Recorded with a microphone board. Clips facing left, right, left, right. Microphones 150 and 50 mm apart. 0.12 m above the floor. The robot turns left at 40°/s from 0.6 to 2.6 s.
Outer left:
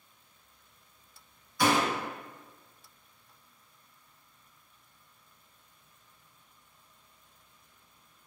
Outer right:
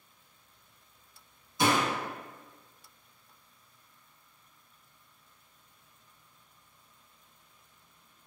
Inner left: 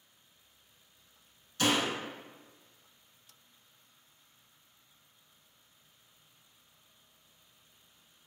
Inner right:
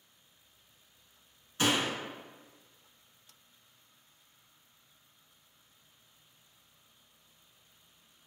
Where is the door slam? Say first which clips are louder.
Outer left 1 dB, even; 25° right (ahead or behind), 1.0 m.